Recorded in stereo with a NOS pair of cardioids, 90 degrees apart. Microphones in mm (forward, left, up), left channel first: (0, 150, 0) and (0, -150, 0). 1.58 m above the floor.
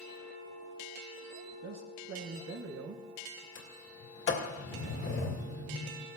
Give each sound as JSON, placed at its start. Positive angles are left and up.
{"t": 1.6, "sound": "a man speaking", "azimuth_deg": -65, "distance_m": 1.2}
{"t": 3.5, "sound": "a sliding door", "azimuth_deg": 50, "distance_m": 2.0}